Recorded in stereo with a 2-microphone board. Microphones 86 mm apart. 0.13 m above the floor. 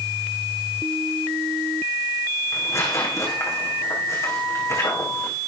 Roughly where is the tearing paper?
Left.